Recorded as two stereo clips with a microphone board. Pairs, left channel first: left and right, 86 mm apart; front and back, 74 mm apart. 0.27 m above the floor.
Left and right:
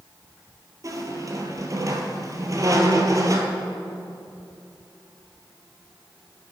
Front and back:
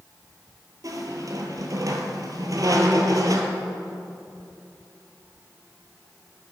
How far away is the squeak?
About 1.0 m.